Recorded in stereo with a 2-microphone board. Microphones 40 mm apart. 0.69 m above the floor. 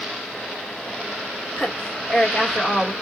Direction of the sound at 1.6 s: 20° left (ahead or behind).